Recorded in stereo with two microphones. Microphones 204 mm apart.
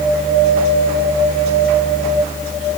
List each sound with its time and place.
Only background noise.